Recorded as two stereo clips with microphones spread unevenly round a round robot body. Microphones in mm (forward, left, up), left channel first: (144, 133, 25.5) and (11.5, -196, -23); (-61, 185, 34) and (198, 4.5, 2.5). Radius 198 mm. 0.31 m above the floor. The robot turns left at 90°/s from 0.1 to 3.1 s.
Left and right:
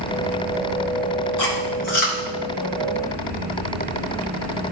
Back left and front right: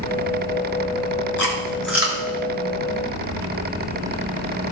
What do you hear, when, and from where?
1.4 s chewing: 100° left, 4 m; by 2.2 s 25° left, 4 m